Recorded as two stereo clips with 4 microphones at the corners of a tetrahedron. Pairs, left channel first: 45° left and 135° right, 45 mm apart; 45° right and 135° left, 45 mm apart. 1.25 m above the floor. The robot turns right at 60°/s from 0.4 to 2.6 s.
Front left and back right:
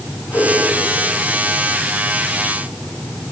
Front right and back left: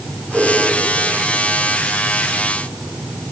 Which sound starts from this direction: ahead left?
A whoosh, at 0.3 s.